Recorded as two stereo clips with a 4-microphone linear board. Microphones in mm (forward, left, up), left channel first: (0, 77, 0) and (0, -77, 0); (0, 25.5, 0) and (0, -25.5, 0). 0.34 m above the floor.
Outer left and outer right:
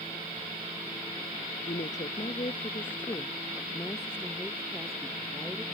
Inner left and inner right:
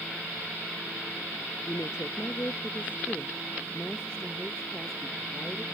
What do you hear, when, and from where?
1.7 s a woman speaking: 55° left (ahead or behind); by 5.6 s 5° right (ahead or behind)